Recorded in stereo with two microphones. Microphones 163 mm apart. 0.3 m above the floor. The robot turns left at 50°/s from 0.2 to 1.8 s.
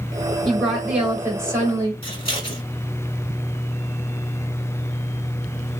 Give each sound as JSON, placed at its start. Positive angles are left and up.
{"t": 0.5, "sound": "a woman speaking", "side_deg": 5, "distance_m": 1.3}
{"t": 2.0, "sound": "scissors", "side_deg": 30, "distance_m": 1.3}